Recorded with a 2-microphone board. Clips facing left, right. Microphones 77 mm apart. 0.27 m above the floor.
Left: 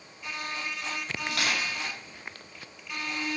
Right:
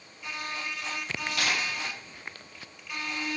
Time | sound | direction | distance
1.3 | crushing | 65° left (ahead or behind) | 1.5 m